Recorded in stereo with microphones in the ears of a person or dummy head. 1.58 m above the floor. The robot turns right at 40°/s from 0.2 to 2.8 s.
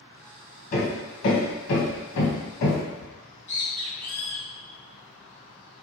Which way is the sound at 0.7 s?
45° left (ahead or behind).